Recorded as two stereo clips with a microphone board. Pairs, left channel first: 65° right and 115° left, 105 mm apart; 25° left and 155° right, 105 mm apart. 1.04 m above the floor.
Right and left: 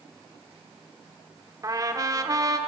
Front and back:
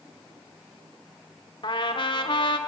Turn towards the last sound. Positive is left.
turn(degrees=60)